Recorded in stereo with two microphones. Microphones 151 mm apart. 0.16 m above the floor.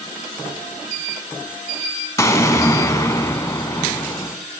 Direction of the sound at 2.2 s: 20° left (ahead or behind).